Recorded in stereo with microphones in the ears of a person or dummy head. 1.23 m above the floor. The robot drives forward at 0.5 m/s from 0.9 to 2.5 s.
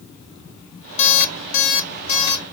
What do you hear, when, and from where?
1.0 s an alarm clock: 45° left (ahead or behind), 0.5 m; by 2.4 s 35° left (ahead or behind), 0.7 m